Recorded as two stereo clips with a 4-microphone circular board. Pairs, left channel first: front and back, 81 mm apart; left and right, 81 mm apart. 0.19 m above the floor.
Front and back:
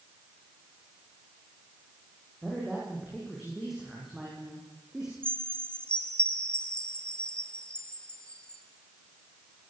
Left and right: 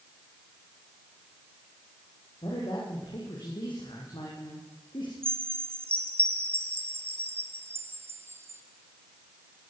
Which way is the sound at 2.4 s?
90° left.